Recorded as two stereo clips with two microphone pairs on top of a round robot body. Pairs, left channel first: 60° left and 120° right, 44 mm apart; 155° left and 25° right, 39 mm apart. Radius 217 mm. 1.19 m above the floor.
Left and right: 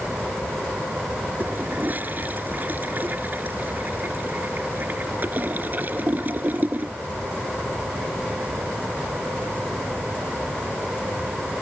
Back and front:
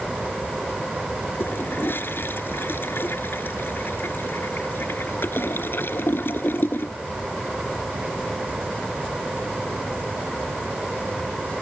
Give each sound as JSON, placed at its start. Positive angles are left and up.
{"t": 1.4, "sound": "a toilet flushing", "azimuth_deg": -170}